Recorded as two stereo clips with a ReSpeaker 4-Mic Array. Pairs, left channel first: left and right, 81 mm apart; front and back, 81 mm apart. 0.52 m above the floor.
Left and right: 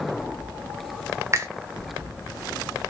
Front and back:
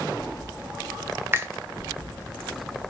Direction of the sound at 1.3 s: 130° right.